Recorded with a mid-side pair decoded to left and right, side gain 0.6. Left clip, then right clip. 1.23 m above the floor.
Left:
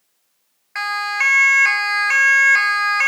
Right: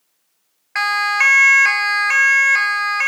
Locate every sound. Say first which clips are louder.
0.8 s a siren: right 4 dB; 30° right, 2 m; by 3.1 s 10° left, 2.5 m